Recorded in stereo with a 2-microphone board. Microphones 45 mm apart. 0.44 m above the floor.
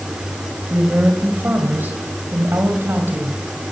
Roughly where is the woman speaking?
Right.